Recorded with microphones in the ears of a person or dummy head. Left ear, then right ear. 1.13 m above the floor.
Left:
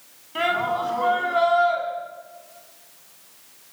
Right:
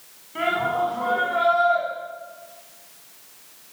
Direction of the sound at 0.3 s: 80° left.